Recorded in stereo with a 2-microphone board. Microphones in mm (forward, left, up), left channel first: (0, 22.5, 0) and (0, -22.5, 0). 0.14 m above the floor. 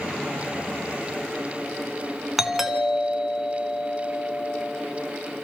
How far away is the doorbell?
About 1.6 m.